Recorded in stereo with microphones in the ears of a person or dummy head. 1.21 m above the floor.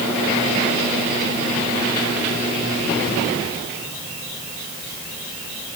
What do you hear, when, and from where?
Only background noise.